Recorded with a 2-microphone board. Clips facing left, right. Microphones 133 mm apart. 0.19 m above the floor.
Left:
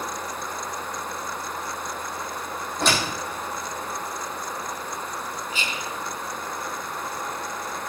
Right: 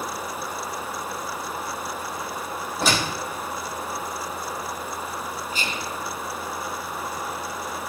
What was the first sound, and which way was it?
A door slam, 5° right (ahead or behind).